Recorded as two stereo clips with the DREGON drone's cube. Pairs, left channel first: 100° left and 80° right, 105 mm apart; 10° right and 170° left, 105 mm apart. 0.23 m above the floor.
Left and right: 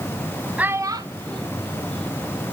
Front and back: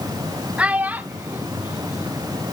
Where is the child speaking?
125° right, 0.5 m; by 2.1 s 115° right, 2.5 m.